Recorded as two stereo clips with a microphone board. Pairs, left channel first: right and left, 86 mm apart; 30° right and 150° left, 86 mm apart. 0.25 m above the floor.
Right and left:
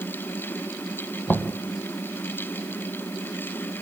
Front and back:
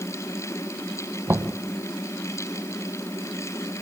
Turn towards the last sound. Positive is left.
turn(degrees=-155)